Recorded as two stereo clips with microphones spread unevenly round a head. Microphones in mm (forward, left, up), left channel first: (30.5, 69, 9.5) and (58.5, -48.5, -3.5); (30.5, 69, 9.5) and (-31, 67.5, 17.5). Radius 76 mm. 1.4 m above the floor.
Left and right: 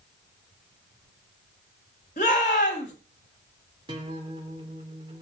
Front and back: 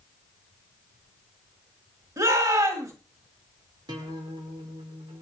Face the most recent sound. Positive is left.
turn(degrees=-145)